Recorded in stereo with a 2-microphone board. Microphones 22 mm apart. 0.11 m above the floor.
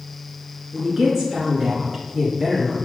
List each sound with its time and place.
0.7 s a woman speaking: 20° right (ahead or behind), 1.5 m